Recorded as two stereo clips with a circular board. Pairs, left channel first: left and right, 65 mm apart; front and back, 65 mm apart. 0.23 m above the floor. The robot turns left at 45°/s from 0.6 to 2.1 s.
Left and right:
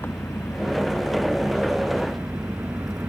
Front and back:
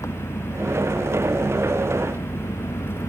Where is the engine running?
35° left; by 3.1 s 35° right.